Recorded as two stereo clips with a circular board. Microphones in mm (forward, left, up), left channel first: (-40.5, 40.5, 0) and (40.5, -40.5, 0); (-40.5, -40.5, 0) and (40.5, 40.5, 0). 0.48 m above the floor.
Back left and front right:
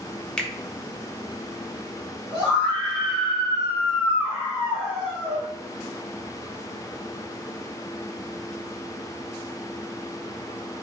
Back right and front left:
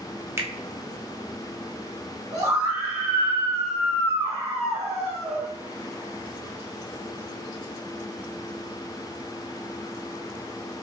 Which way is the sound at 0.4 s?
65° left.